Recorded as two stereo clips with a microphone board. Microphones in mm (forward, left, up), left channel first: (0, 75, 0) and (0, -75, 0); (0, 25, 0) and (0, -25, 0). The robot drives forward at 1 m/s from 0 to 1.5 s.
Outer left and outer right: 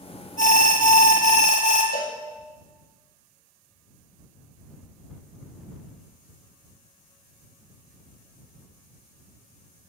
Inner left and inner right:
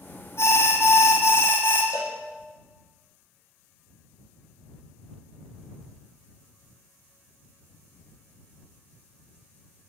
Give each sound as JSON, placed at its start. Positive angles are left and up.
{"t": 0.4, "sound": "an alarm", "side_deg": 65, "distance_m": 1.6}
{"t": 1.9, "sound": "a cowbell", "side_deg": 85, "distance_m": 2.5}